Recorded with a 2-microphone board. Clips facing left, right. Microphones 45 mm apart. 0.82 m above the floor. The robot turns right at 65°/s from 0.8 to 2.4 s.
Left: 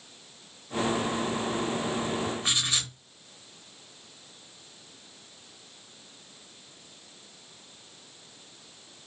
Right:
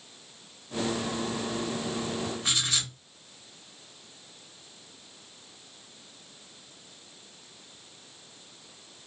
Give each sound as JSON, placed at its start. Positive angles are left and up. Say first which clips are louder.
{"t": 2.4, "sound": "writing", "louder": "left 1 dB", "side_deg": 25, "distance_m": 1.0}